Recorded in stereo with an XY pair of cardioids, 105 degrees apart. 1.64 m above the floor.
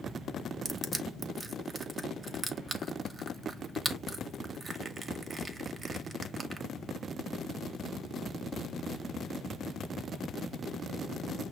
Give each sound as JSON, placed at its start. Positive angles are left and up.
{"t": 0.7, "sound": "crushing", "azimuth_deg": -35, "distance_m": 0.7}